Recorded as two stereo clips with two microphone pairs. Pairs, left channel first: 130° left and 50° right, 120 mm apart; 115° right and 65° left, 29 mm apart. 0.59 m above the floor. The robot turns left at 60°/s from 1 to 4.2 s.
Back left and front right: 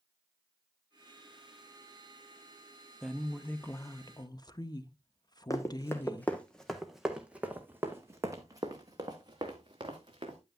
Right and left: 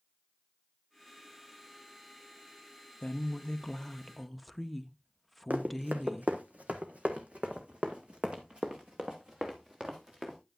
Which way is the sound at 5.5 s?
70° left.